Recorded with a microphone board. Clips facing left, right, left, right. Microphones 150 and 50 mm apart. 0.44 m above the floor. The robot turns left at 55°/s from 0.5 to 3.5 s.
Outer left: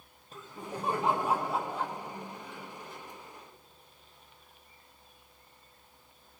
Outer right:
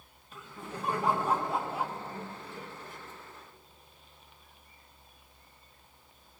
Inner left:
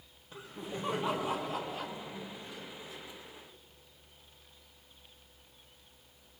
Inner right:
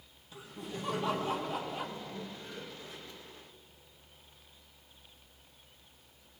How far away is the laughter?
About 1.4 m.